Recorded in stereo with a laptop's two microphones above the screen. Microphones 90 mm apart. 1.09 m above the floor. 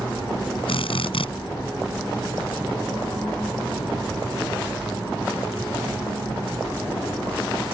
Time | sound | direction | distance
0.7 | a drill | 70° left (ahead or behind) | ?